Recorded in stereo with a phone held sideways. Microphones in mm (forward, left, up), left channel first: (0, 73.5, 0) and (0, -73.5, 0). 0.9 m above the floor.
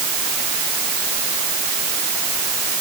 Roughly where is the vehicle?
No vehicle in this recording.